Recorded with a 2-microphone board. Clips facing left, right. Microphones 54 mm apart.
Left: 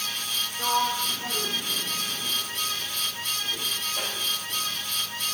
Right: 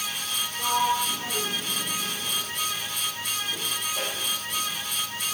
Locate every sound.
0.6 s a sliding door: 10° right (ahead or behind), 3 m